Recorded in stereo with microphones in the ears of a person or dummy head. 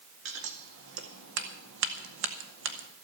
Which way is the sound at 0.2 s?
65° right (ahead or behind).